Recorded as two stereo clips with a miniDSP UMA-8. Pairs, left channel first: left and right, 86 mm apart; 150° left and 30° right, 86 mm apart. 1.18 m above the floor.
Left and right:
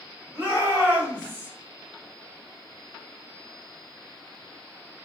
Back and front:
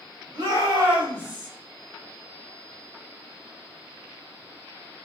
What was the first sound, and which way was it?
A shout, 25° right.